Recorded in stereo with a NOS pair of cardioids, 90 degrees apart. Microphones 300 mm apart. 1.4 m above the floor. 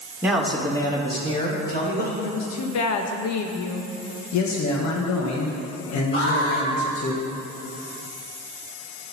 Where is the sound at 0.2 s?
5° right, 2.0 m; by 2.1 s 30° left, 4 m.